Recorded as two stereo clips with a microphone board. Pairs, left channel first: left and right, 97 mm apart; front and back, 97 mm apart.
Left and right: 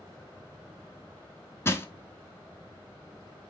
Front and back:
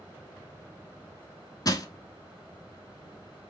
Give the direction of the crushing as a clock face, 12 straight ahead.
11 o'clock.